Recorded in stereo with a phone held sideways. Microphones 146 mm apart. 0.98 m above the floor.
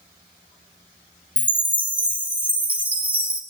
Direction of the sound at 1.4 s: 10° right (ahead or behind).